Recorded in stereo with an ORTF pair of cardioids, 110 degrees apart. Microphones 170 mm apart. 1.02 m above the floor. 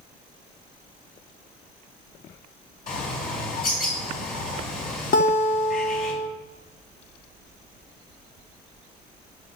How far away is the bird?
About 4.5 m.